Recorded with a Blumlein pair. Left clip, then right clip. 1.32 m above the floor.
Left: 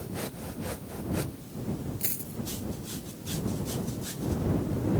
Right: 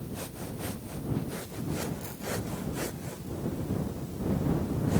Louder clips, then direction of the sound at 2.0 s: Right 4 dB; 55° left.